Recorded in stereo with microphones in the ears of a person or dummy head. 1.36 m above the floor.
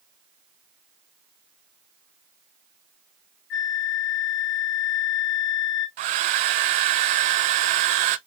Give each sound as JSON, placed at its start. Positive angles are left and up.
{"t": 3.5, "sound": "a flute", "side_deg": 55, "distance_m": 1.1}
{"t": 6.0, "sound": "a hair dryer", "side_deg": -40, "distance_m": 0.5}